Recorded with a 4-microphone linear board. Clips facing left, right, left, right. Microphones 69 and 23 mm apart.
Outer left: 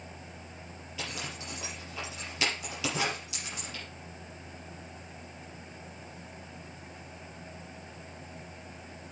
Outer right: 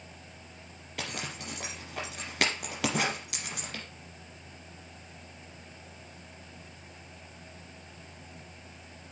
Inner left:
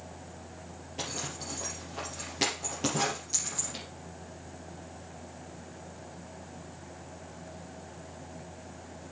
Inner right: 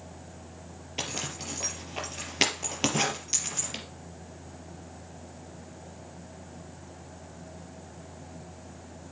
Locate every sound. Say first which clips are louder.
1.0 s a zipper: outer right 2 dB, inner right 3 dB; 65° right (ahead or behind), 4 m